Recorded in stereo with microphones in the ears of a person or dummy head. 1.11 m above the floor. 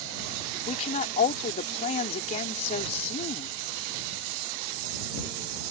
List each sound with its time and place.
0.7 s a woman speaking: 40° left (ahead or behind)